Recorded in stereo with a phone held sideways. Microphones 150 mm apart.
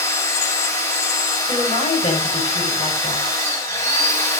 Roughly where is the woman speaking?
Left.